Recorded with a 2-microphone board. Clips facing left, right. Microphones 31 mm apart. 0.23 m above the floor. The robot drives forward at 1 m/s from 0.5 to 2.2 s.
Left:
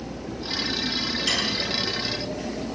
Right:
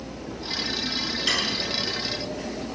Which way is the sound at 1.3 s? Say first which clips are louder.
Right 1 dB; 15° right (ahead or behind).